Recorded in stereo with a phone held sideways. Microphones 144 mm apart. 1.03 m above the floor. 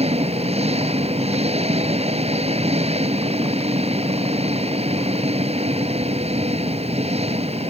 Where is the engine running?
45° right (ahead or behind).